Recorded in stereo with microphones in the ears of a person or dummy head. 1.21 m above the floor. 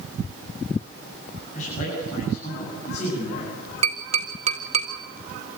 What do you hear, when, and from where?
1.5 s a man speaking: 40° left (ahead or behind), 9 m
3.8 s tapping: 30° right (ahead or behind), 2 m